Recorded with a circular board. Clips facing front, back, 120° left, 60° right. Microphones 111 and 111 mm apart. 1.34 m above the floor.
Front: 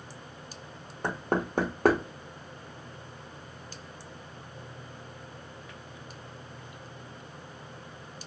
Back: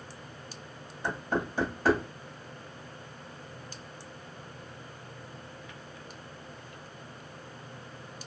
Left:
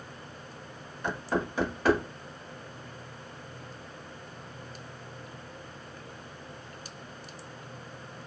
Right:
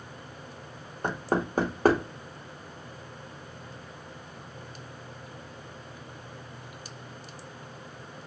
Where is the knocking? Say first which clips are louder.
Front 2 dB, right 2 dB; 20° right, 0.7 m.